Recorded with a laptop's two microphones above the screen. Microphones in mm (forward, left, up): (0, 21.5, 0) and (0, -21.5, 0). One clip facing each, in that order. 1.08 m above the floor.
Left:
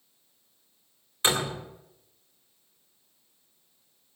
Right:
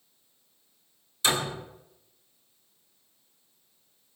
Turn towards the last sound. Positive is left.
turn(degrees=35)  # may be behind; listen again after turning